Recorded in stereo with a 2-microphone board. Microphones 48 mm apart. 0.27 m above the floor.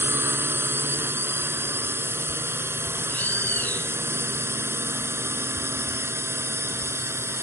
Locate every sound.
0.0 s a drone: 55° right (ahead or behind); by 7.4 s 65° right (ahead or behind)
3.1 s a bird: 40° left (ahead or behind)